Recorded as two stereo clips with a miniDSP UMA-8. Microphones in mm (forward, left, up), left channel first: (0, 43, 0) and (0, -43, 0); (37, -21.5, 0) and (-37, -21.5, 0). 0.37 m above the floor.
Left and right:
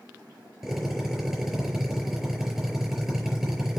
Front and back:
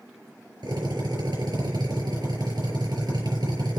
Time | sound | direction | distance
0.6 | a drill | 175° right | 5 m